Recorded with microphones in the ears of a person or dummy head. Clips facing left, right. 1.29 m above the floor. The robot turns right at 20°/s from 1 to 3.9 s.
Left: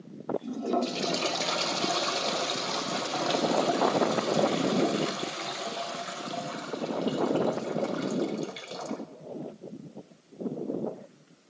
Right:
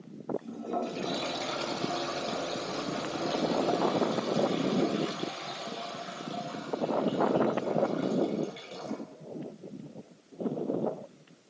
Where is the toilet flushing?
70° left, 0.7 m; by 9.0 s 130° left, 0.7 m.